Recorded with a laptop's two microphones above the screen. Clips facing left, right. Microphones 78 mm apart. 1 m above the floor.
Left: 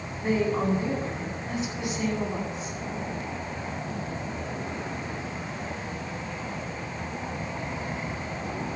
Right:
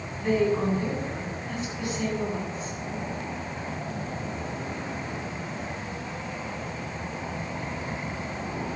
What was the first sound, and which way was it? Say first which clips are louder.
A woman speaking: right 2 dB; 20° left (ahead or behind).